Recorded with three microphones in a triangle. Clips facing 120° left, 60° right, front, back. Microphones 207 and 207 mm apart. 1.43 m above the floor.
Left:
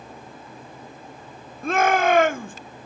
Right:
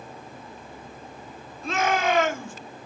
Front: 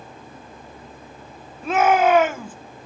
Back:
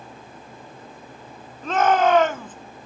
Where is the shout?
80° left, 1.1 m.